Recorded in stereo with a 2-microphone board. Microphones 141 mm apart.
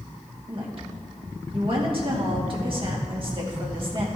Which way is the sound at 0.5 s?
40° right (ahead or behind).